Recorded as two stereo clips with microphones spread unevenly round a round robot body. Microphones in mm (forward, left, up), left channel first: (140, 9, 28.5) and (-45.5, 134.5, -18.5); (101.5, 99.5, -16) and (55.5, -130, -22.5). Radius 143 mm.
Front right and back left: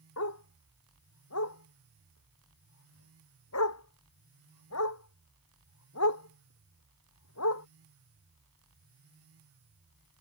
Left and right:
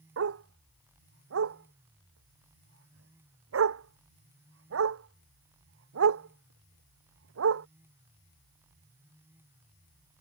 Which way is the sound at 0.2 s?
75° right.